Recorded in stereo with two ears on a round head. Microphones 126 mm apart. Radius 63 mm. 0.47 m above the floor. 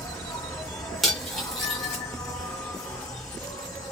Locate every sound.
0.0 s an insect: 20° left (ahead or behind), 1.2 m
1.0 s cutlery clinking: centre (ahead or behind), 1.3 m